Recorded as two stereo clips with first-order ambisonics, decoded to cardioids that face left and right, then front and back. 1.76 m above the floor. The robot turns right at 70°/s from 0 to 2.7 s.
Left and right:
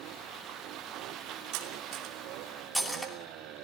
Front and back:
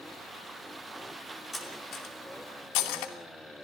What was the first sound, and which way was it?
Cutlery clinking, 80° right.